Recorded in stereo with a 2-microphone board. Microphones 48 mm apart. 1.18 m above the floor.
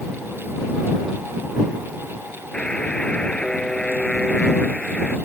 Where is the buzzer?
15° left (ahead or behind).